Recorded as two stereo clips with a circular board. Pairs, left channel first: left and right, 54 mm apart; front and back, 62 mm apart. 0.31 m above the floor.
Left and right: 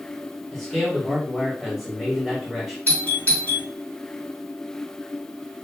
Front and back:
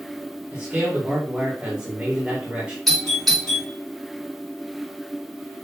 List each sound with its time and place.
0.5 s a man speaking: 175° left, 1.5 m
2.9 s a doorbell: 85° left, 2.5 m